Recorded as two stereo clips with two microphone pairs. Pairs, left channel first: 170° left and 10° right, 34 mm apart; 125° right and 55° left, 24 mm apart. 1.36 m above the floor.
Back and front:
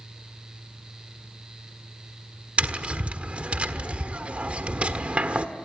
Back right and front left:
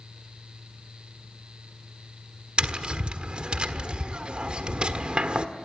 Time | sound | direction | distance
2.6 | tapping | 25° left | 1.4 m